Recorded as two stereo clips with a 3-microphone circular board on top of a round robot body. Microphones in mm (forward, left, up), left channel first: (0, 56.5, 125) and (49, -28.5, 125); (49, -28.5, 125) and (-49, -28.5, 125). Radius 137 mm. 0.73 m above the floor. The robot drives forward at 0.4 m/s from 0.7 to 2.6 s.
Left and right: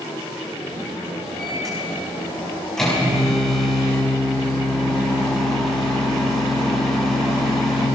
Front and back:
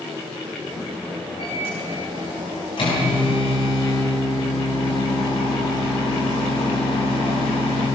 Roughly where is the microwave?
Ahead left.